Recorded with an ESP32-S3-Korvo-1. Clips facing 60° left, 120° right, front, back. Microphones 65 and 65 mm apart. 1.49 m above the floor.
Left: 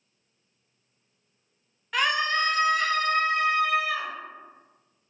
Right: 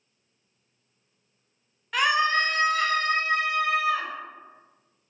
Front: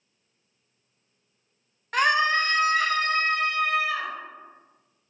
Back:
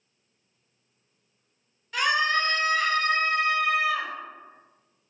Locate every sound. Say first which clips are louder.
1.9 s a scream: right 3 dB, front 2 dB; 30° right, 0.5 m; by 4.1 s 105° right, 2.0 m